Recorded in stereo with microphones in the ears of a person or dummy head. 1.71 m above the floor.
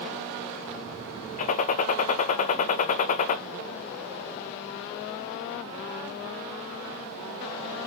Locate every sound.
1.4 s a gunshot: 40° left (ahead or behind), 0.6 m